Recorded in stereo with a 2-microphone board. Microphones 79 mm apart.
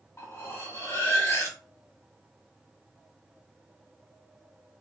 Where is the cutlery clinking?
40° left (ahead or behind), 1.0 m.